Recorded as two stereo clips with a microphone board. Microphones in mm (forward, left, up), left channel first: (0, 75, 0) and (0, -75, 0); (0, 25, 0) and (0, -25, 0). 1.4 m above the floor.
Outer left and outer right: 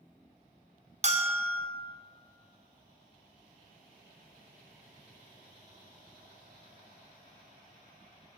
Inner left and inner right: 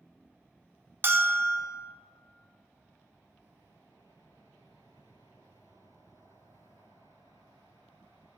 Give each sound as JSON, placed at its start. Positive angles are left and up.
{"t": 1.0, "sound": "a bell", "side_deg": -50, "distance_m": 0.6}